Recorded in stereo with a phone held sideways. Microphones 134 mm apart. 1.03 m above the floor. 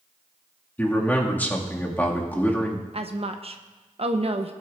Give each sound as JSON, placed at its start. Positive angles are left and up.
{"t": 0.8, "sound": "a man speaking", "side_deg": 15, "distance_m": 1.7}
{"t": 2.9, "sound": "a woman speaking", "side_deg": -50, "distance_m": 0.6}